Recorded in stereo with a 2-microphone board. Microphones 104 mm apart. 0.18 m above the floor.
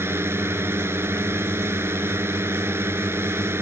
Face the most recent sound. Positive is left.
turn(degrees=-25)  # may be behind; listen again after turning